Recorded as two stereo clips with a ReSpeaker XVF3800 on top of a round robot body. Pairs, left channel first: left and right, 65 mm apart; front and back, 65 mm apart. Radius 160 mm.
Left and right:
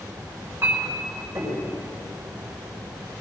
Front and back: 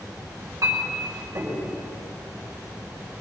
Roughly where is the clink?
Behind right.